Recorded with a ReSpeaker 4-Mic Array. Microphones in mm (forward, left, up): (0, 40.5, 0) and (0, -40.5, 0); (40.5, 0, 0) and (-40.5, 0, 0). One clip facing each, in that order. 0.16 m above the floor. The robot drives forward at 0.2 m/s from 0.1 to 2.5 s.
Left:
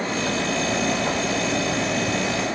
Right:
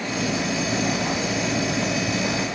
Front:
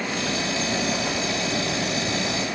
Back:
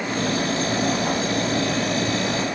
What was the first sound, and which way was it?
Only background noise.